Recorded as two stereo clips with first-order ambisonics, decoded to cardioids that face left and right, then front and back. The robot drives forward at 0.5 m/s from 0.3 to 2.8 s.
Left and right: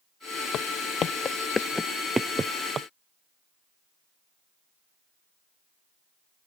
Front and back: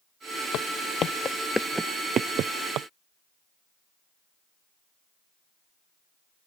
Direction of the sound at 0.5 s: 40° left.